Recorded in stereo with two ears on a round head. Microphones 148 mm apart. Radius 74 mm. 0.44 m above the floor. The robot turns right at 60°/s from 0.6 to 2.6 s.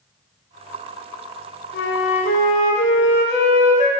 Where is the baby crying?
No baby crying in this recording.